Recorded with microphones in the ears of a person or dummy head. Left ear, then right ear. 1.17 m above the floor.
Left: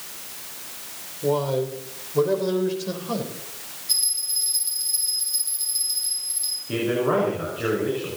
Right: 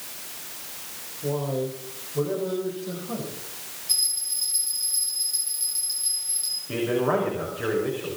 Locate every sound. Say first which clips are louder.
1.2 s a man speaking: left 5 dB; 75° left (ahead or behind), 3.5 m; by 3.3 s 90° left, 4.5 m
3.9 s a bell: left 2 dB; 5° left (ahead or behind), 9 m
6.7 s a man speaking: left 2 dB; 5° right (ahead or behind), 5.5 m